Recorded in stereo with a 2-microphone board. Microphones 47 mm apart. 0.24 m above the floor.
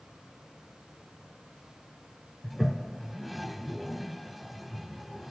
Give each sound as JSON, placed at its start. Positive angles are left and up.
{"t": 2.4, "sound": "a toilet flushing", "side_deg": 0}